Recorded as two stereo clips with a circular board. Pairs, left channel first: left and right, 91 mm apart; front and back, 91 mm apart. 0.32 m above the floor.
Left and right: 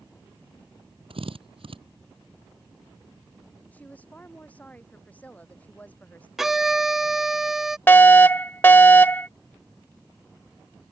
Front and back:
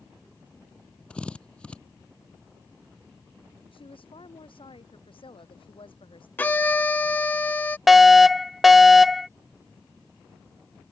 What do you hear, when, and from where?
1.1 s a drill: 80° right
3.7 s a woman speaking: 15° left
6.4 s a violin: 15° right
7.9 s a fire alarm: 95° left